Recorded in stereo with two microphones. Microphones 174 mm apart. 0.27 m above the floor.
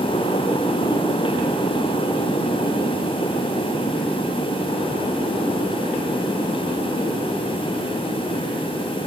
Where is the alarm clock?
I don't hear an alarm clock.